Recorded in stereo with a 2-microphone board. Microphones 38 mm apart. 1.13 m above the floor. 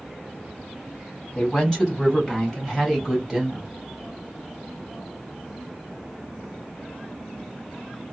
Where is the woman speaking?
20° left (ahead or behind), 2.5 m; by 3.7 s 10° right (ahead or behind), 2.5 m.